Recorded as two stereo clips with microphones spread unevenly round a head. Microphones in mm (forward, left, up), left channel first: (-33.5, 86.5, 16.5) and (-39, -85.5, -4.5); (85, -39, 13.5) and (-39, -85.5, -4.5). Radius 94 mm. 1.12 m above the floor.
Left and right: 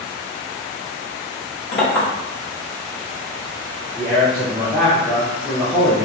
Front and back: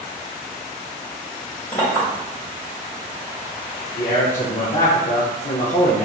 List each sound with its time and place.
1.7 s a clink: 80° left, 1.4 m
4.0 s a man speaking: 5° right, 0.5 m